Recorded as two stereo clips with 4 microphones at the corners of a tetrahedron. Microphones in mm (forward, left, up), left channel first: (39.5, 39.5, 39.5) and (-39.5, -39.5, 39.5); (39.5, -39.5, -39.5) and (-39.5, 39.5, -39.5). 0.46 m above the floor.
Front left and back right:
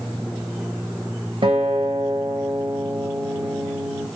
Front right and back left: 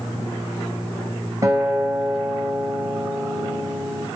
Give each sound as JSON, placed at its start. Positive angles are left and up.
{"t": 1.4, "sound": "a guitar", "azimuth_deg": -170, "distance_m": 2.0}